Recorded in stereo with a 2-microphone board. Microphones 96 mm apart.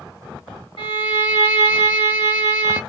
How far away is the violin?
About 1.7 m.